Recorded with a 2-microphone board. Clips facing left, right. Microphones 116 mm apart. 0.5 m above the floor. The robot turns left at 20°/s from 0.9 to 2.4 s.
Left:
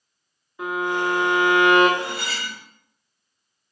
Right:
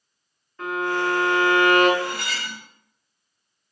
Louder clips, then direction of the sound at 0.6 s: Even; 10° left (ahead or behind).